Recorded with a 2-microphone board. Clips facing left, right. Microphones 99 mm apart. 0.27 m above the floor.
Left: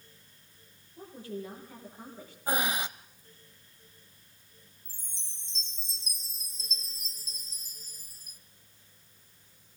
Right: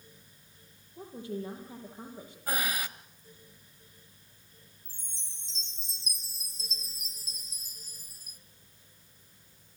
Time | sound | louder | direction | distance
1.0 | a woman speaking | right 2 dB | 20° right (ahead or behind) | 7.5 m
2.5 | breathing | left 3 dB | 25° left (ahead or behind) | 0.8 m
4.8 | a chime | right 1 dB | 60° right (ahead or behind) | 0.9 m